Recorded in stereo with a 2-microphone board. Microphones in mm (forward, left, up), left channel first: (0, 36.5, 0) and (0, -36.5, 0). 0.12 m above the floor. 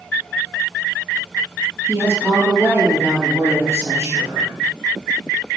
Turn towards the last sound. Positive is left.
turn(degrees=-40)  # may be behind; listen again after turning